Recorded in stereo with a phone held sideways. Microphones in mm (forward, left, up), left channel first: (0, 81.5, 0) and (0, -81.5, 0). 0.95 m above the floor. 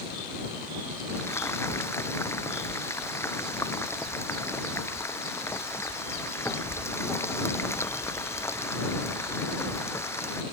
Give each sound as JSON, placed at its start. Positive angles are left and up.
{"t": 1.1, "sound": "frying", "side_deg": 15}